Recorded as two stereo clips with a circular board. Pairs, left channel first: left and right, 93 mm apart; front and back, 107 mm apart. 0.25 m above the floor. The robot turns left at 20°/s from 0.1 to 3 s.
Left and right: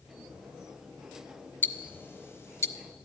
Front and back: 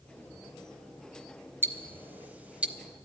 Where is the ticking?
135° left, 0.6 m; by 2.8 s 115° left, 0.6 m.